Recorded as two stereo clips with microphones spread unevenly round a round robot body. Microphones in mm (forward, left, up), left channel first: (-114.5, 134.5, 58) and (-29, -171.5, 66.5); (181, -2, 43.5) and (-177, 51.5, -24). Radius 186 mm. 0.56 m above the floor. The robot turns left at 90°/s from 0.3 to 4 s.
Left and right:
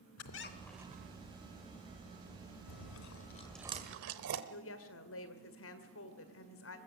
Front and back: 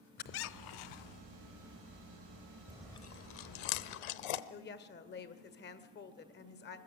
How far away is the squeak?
About 0.6 m.